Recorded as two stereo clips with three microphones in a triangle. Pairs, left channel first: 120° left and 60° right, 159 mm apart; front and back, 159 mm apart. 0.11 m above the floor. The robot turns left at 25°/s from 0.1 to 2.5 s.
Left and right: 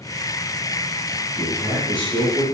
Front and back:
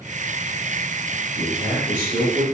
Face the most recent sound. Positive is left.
turn(degrees=-120)